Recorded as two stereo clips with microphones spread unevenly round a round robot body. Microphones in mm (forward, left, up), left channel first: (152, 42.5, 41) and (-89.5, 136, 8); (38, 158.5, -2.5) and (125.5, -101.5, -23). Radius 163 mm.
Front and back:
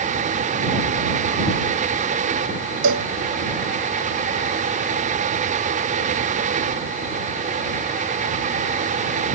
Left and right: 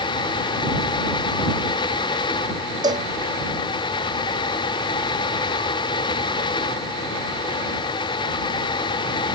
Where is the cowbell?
150° right.